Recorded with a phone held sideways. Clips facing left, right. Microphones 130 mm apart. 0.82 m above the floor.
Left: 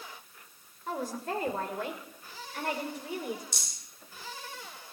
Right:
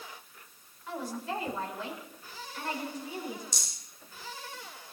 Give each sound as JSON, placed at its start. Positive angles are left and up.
{"t": 0.9, "sound": "a woman speaking", "side_deg": 45, "distance_m": 3.5}
{"t": 3.5, "sound": "a rattle", "side_deg": 60, "distance_m": 6.0}